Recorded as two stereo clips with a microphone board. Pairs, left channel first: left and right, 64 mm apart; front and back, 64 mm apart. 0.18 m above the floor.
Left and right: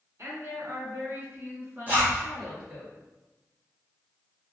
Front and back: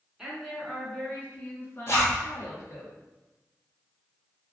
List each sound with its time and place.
0.2 s a woman speaking: 105° right, 1.5 m; by 2.9 s 20° right, 2 m
1.9 s a zipper: 35° right, 1.5 m